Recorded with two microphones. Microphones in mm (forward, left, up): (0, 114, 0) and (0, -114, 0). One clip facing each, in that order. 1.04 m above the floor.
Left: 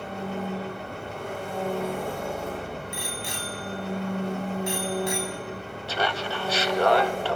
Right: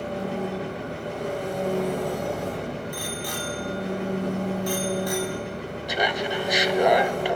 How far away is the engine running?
About 8 m.